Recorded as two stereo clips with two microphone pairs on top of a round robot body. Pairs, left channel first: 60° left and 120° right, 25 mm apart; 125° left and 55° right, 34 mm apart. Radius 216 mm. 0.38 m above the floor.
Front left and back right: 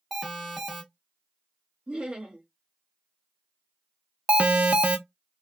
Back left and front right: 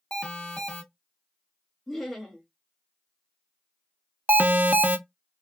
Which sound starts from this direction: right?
An alarm, at 4.3 s.